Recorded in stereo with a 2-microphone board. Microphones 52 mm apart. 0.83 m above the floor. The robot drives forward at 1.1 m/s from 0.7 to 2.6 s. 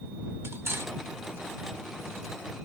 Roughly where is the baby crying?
I don't hear a baby crying.